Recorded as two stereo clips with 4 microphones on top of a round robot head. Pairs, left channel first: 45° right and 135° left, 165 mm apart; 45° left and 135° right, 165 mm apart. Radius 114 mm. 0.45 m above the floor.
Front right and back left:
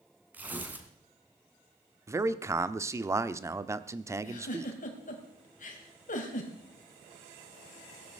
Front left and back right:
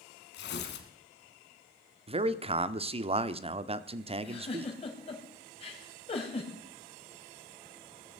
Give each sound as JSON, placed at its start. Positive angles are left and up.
{"t": 0.3, "sound": "tearing paper", "azimuth_deg": 55, "distance_m": 2.0}
{"t": 2.1, "sound": "a man speaking", "azimuth_deg": -160, "distance_m": 0.9}
{"t": 4.2, "sound": "a giggle", "azimuth_deg": -10, "distance_m": 3.0}